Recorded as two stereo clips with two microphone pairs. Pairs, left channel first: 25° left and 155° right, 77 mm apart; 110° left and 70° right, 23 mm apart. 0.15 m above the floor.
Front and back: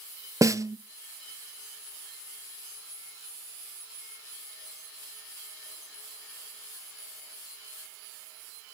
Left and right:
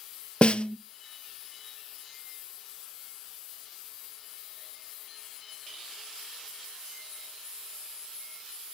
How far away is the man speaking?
I don't hear a man speaking.